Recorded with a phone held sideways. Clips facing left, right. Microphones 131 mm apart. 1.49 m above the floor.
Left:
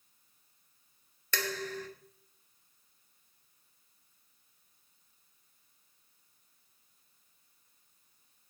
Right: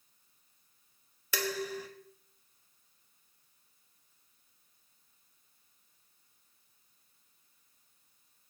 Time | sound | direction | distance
1.3 | dishes clattering | 10° right (ahead or behind) | 1.4 m